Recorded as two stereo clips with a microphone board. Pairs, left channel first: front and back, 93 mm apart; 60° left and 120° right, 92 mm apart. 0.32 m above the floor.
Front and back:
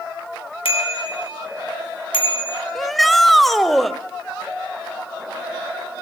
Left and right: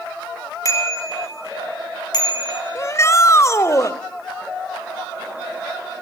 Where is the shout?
90° left, 1.1 m.